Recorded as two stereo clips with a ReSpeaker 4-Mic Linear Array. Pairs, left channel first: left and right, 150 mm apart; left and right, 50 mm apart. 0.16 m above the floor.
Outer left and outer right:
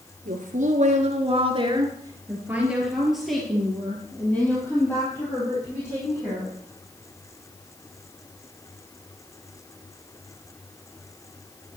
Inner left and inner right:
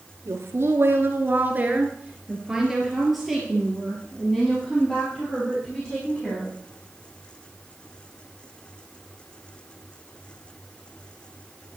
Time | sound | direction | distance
0.2 | a woman speaking | 65° right (ahead or behind) | 2.5 m